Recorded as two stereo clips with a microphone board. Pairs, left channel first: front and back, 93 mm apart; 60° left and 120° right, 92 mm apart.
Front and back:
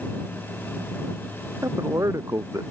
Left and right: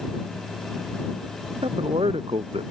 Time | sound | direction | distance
1.6 | a man speaking | 125° right | ?